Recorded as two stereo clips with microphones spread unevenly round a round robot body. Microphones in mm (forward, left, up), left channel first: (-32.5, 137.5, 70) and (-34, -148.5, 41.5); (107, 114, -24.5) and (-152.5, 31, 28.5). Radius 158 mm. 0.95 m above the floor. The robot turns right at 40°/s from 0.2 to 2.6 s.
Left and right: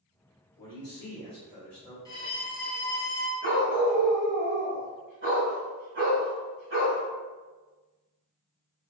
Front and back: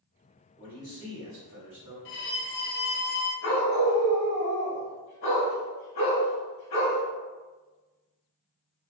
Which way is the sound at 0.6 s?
115° left.